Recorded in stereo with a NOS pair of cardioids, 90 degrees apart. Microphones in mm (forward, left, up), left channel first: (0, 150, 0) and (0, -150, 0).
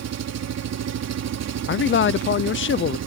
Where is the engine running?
60° right.